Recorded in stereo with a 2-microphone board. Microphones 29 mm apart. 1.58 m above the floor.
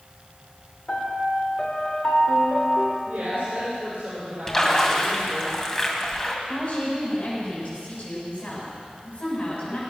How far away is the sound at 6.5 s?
About 6.5 m.